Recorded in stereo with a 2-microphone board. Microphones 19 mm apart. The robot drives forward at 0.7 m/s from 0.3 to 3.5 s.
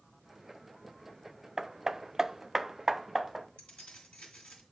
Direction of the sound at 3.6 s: 70° left (ahead or behind).